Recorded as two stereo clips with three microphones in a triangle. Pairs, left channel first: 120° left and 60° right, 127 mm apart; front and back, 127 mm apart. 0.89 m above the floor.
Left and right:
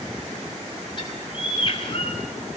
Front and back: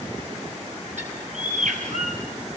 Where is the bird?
165° left, 5 m.